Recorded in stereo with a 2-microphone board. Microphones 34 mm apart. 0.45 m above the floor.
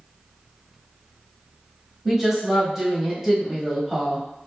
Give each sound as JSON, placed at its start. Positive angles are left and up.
{"t": 2.0, "sound": "a woman speaking", "side_deg": -10, "distance_m": 1.0}